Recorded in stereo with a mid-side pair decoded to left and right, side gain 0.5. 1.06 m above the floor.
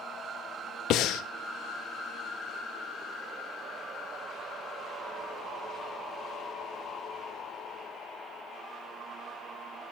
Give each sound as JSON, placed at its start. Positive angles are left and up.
{"t": 0.9, "sound": "breathing", "azimuth_deg": 70, "distance_m": 0.7}